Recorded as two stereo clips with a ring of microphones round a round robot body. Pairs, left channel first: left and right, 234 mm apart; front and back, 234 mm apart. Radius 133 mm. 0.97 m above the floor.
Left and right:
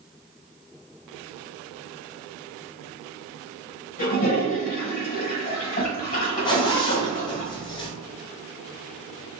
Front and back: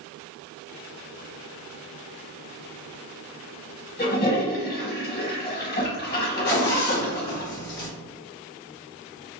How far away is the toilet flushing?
About 1.0 m.